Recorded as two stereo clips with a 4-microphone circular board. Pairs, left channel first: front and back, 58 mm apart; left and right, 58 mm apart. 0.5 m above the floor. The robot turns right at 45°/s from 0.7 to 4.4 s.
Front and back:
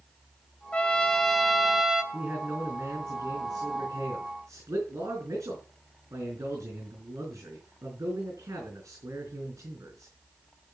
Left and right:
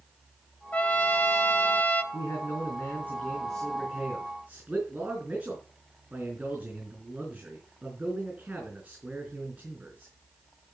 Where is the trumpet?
55° left, 1.0 m; by 2.0 s 115° left, 1.0 m.